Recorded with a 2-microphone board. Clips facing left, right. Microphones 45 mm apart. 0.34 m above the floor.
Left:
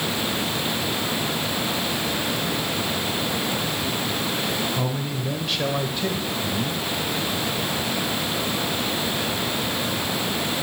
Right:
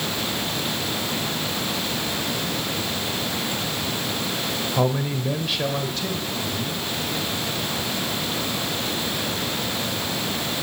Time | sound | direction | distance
4.8 | a man speaking | 35° right (ahead or behind) | 1.6 m